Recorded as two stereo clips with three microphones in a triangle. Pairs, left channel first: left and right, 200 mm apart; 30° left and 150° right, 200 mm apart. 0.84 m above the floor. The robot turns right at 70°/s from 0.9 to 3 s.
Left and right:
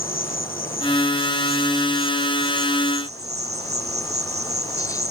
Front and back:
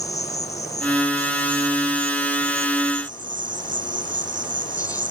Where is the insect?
85° left; by 5.1 s 125° right.